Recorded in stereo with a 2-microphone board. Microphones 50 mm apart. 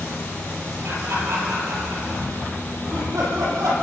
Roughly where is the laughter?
Right.